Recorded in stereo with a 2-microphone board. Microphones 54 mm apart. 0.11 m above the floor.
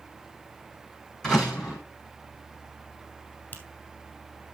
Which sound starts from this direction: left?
A finger snap, at 3.5 s.